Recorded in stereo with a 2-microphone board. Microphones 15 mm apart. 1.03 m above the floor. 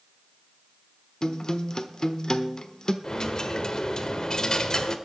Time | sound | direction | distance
1.2 | a guitar | 45° left (ahead or behind) | 1.0 m
3.0 | a dropped coin | 45° left (ahead or behind) | 1.2 m